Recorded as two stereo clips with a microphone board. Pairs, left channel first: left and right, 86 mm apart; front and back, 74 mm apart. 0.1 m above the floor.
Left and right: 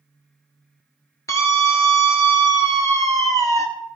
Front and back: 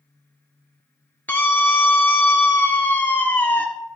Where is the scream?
60° left, 1.6 m.